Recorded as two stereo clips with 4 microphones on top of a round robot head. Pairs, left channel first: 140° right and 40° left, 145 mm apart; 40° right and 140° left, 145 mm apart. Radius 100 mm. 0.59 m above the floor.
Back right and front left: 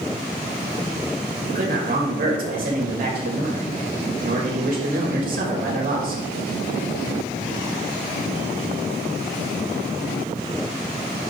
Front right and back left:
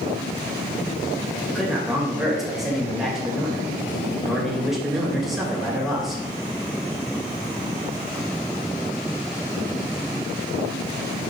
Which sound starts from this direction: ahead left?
A man speaking, at 1.5 s.